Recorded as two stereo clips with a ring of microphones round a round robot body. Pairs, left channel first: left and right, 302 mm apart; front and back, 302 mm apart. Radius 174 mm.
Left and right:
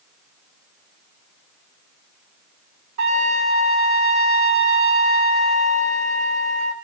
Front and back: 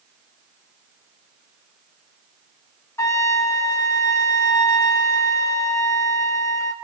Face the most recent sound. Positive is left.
turn(degrees=-80)